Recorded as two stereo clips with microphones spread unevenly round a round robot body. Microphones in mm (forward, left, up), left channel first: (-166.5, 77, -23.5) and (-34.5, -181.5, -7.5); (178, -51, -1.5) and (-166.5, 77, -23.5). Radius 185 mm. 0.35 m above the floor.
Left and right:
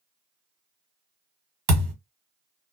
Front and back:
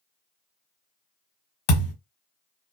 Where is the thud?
50° right, 1.3 m.